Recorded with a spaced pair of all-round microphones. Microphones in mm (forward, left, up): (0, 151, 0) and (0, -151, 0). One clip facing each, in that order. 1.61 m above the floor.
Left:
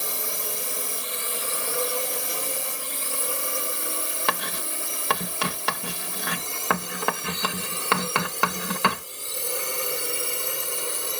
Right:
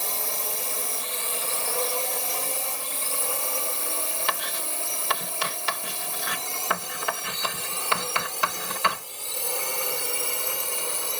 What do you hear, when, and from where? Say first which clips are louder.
0.0 s a drone: left 1 dB; 15° left (ahead or behind); by 11.2 s 20° left (ahead or behind)
4.3 s writing: left 3 dB; 60° left (ahead or behind)